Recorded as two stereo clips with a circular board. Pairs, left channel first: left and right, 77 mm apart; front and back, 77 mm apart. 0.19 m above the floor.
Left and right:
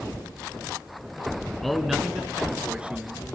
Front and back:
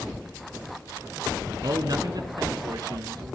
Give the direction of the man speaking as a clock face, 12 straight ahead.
6 o'clock.